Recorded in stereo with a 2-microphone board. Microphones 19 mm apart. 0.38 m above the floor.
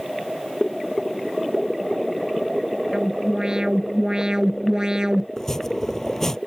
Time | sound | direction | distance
2.9 | an alarm | 45° right (ahead or behind) | ?
5.4 | chopping | 20° left (ahead or behind) | ?